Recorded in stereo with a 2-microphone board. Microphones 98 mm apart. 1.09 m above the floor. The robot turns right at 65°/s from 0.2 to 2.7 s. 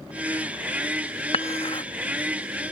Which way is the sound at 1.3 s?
85° left.